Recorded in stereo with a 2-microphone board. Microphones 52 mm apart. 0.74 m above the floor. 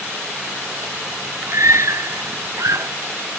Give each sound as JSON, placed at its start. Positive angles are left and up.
{"t": 1.5, "sound": "a scream", "side_deg": -65}